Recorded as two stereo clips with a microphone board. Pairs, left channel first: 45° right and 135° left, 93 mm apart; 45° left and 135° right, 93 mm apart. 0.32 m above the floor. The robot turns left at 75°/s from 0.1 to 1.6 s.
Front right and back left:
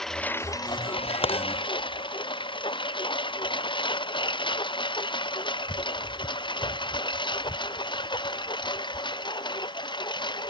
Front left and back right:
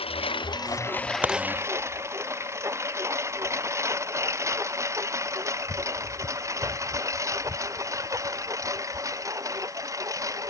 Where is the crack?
60° right; by 1.4 s 70° right.